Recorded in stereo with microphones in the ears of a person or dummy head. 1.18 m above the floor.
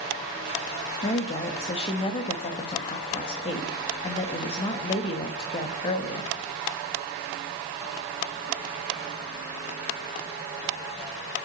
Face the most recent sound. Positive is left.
turn(degrees=25)  # may be behind; listen again after turning